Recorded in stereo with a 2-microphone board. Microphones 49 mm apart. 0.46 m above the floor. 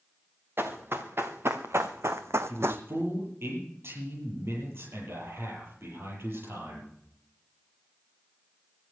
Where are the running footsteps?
50° right (ahead or behind), 3 m.